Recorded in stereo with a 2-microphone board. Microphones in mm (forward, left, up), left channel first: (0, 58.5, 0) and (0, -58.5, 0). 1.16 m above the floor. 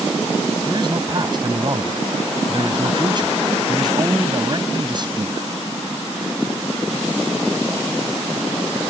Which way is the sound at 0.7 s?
40° right (ahead or behind).